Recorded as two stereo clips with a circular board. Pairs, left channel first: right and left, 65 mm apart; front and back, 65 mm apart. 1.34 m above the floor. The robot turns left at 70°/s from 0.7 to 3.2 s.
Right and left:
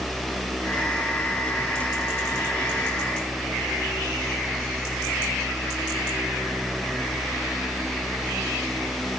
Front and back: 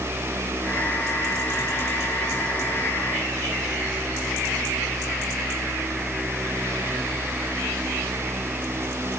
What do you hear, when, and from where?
Only background noise.